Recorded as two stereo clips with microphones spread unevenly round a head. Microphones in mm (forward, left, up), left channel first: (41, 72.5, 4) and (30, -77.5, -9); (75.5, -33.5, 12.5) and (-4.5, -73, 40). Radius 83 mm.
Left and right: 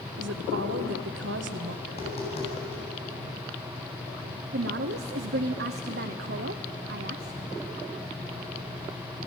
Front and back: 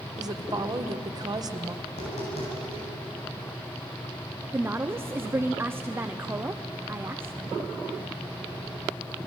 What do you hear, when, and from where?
0.2 s a woman speaking: 110° right, 1.5 m
1.9 s tapping: 40° left, 9 m
4.5 s a woman speaking: 85° right, 0.9 m